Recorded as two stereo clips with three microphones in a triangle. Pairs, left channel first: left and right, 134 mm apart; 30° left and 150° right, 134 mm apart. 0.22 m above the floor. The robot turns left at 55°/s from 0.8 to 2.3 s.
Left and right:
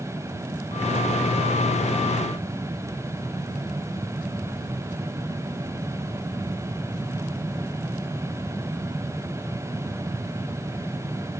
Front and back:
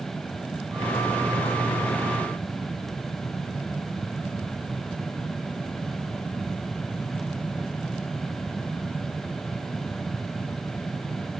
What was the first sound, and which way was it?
Only background noise.